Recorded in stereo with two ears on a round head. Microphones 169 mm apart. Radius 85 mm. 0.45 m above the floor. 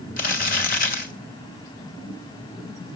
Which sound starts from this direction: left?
Crumpling, at 0.2 s.